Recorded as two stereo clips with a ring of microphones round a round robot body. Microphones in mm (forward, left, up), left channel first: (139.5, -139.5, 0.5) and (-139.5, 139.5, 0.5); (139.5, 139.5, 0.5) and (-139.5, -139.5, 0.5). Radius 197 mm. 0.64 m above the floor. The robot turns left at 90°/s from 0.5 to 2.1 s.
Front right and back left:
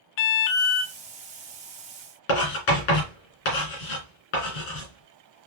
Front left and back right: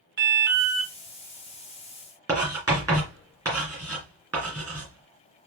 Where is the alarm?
70° right, 0.6 m; by 0.9 s 105° right, 0.6 m.